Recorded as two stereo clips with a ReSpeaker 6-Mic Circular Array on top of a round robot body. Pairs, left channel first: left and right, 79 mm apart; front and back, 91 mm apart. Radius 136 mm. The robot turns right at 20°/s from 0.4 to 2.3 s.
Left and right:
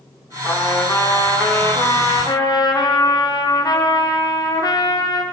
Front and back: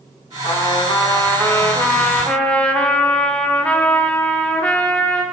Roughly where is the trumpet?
Ahead left.